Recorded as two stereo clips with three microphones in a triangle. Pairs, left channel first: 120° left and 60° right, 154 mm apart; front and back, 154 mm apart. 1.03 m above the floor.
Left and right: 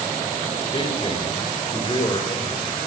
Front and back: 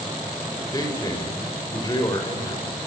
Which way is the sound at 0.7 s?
65° left.